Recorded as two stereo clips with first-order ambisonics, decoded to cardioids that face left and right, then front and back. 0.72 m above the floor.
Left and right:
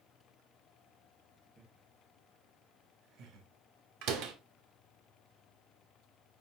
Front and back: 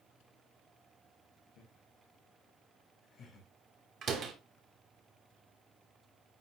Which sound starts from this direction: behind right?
A door slam, at 4.0 s.